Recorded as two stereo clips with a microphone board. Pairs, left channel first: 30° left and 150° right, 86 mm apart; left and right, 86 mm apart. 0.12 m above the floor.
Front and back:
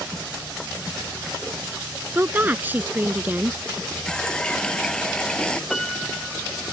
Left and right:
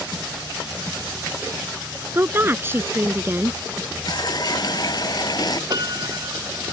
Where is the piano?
55° right.